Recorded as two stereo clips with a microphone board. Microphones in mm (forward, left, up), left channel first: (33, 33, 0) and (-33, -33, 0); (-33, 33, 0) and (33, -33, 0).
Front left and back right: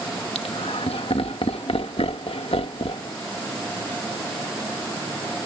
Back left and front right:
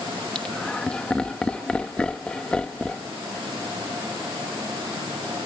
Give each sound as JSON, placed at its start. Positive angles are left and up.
{"t": 0.3, "sound": "laughter", "azimuth_deg": 55}